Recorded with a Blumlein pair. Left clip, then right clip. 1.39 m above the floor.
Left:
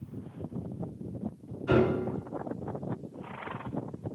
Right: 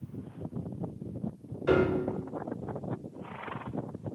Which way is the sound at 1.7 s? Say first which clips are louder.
Even; 55° right.